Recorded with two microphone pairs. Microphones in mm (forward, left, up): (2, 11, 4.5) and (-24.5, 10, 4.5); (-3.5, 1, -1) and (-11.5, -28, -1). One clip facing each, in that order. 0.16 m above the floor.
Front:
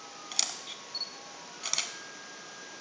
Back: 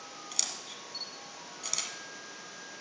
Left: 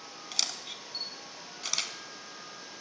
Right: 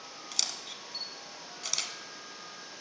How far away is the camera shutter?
About 0.7 m.